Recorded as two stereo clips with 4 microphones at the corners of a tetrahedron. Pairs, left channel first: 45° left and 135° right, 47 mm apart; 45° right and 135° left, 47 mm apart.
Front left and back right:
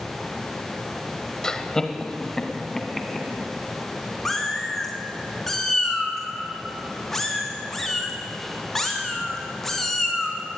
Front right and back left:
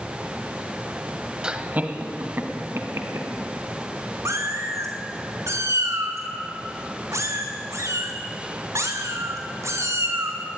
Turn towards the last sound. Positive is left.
turn(degrees=130)